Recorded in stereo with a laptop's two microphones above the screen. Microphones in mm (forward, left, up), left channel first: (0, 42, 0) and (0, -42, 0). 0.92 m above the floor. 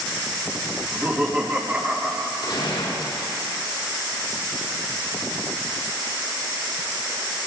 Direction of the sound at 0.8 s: 25° right (ahead or behind).